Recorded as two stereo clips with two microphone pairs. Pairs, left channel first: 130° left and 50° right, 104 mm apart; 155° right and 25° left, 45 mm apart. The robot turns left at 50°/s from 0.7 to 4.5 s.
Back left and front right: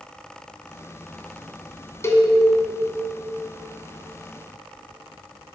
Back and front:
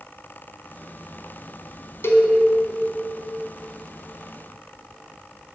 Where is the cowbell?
165° right, 0.9 m; by 2.3 s straight behind, 0.9 m.